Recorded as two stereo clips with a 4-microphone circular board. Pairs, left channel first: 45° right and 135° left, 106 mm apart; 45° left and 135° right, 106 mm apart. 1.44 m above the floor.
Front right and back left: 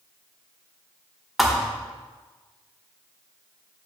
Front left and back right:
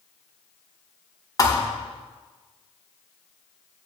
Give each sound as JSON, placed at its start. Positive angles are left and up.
{"t": 1.4, "sound": "a thud", "azimuth_deg": 45, "distance_m": 1.1}